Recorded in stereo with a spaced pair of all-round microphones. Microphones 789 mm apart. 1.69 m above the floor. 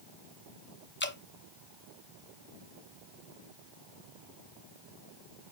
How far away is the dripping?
About 0.8 m.